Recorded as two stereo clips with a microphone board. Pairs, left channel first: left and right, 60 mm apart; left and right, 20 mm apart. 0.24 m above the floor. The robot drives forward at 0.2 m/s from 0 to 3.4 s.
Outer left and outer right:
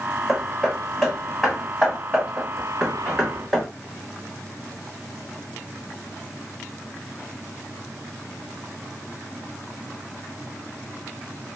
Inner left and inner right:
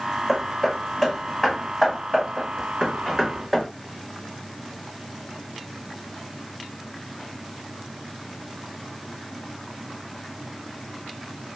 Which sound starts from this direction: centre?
Hammering, at 0.3 s.